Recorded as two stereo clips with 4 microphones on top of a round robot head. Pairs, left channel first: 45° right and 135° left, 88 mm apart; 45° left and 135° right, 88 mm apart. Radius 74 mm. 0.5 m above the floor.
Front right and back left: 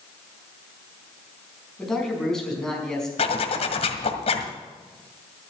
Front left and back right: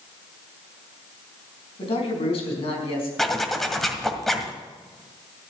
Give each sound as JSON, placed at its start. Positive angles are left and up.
{"t": 1.8, "sound": "a man speaking", "azimuth_deg": 40, "distance_m": 5.0}
{"t": 3.2, "sound": "a zipper", "azimuth_deg": -40, "distance_m": 1.8}